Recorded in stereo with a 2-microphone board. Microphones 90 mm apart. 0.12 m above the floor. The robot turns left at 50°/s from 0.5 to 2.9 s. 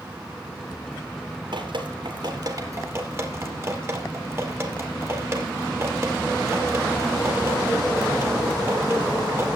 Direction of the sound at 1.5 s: 65° right (ahead or behind).